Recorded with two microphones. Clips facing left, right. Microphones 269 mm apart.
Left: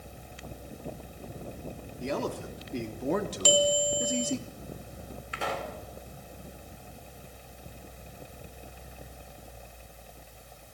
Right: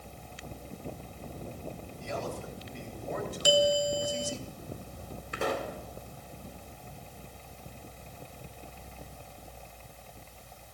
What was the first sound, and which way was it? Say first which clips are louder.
A man speaking: left 6 dB; 70° left (ahead or behind).